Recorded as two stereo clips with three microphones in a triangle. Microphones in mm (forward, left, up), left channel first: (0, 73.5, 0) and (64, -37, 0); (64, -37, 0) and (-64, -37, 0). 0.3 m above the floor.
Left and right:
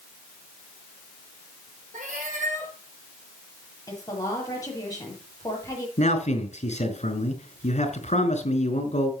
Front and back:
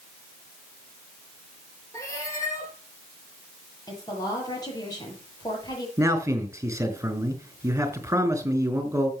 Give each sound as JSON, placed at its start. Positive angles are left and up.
{"t": 1.9, "sound": "a cat meowing", "azimuth_deg": -65, "distance_m": 4.5}
{"t": 3.9, "sound": "a woman speaking", "azimuth_deg": 60, "distance_m": 8.0}
{"t": 6.0, "sound": "a man speaking", "azimuth_deg": 115, "distance_m": 3.5}